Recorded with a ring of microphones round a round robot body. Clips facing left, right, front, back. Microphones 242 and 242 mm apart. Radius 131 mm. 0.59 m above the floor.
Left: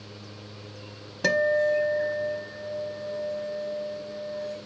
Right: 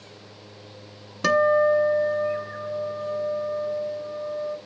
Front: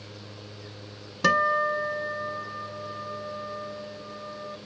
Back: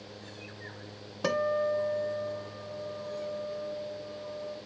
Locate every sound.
1.2 s a guitar: 20° right, 0.9 m